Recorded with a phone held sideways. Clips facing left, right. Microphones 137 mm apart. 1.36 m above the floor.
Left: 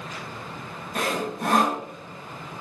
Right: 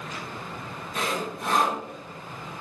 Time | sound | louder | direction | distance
0.9 | sawing | left 3 dB | 50° left (ahead or behind) | 0.7 m